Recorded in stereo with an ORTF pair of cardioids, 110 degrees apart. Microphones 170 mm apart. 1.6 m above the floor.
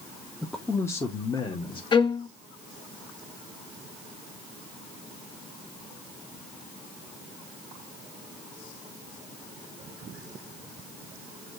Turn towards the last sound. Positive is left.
turn(degrees=30)